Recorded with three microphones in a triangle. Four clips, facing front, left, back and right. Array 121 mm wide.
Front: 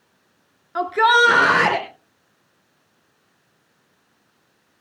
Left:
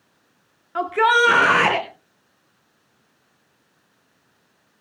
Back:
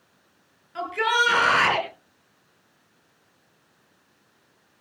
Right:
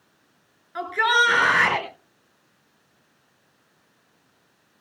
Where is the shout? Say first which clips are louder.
Left 4 dB, front 8 dB; 45° left, 3 m; by 1.9 s 40° left, 4.5 m.